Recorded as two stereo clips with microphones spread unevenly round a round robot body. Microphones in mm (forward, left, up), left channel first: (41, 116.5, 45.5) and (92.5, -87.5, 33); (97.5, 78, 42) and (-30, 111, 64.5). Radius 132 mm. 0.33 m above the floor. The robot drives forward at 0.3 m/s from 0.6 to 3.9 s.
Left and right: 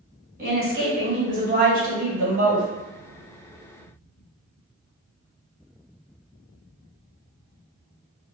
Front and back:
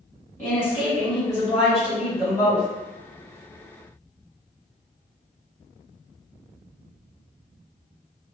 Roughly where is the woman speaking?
Right.